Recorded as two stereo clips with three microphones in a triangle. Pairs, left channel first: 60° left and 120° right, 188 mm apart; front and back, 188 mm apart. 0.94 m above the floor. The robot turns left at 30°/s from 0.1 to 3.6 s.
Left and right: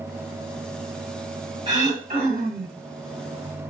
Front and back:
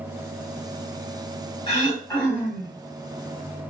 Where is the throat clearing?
55° right, 1.4 m; by 2.8 s 90° right, 1.4 m.